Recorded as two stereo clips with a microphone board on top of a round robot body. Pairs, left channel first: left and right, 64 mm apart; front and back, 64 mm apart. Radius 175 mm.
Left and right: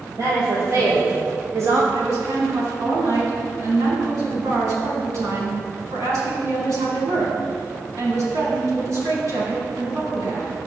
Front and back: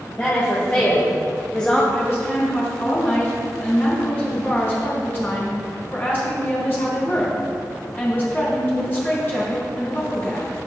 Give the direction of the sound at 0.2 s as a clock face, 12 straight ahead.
2 o'clock.